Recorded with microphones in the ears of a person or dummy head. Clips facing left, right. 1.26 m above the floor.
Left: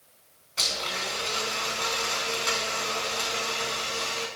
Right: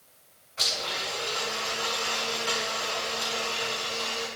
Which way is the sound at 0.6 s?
50° left (ahead or behind).